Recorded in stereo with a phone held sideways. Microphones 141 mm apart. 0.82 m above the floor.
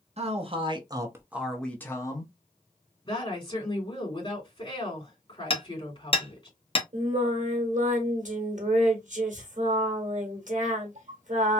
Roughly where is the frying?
I don't hear frying.